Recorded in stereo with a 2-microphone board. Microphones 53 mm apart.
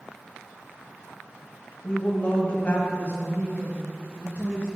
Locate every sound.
1.8 s a woman speaking: 30° left (ahead or behind), 1.2 m; by 4.7 s 20° left (ahead or behind), 4 m